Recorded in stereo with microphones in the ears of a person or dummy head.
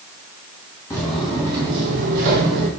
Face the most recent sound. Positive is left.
turn(degrees=-55)  # may be behind; listen again after turning